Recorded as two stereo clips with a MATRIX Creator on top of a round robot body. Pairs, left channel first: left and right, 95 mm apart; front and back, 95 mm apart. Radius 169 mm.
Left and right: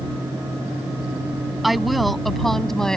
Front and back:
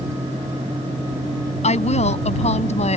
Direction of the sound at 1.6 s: Straight ahead.